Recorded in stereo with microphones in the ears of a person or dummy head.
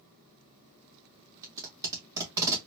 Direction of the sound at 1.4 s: 15° right (ahead or behind).